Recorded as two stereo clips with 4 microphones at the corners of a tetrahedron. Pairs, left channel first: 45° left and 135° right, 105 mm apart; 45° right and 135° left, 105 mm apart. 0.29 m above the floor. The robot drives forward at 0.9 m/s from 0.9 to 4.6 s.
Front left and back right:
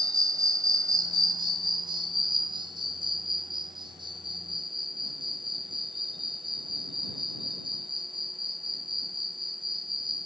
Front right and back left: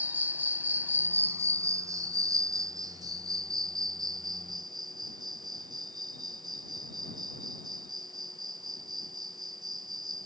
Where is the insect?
160° right; by 10.3 s 175° right.